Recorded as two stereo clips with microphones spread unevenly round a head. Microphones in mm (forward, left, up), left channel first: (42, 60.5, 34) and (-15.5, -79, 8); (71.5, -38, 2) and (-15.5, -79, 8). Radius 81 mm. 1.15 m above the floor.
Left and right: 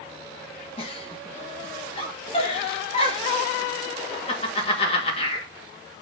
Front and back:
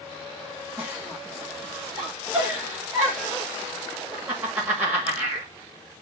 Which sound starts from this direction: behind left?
A giggle, at 0.8 s.